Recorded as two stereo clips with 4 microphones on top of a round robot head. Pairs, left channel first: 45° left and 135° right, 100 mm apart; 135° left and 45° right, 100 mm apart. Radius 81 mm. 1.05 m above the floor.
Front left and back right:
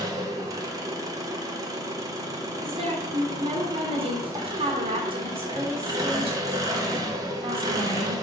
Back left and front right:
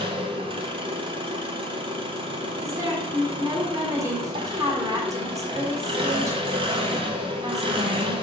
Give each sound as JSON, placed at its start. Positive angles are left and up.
{"t": 0.0, "sound": "an engine running", "azimuth_deg": -80, "distance_m": 1.3}
{"t": 2.6, "sound": "a woman speaking", "azimuth_deg": -105, "distance_m": 2.0}